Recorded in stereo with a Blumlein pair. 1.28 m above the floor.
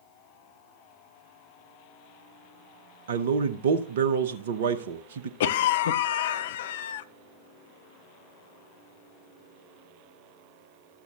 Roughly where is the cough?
Ahead left.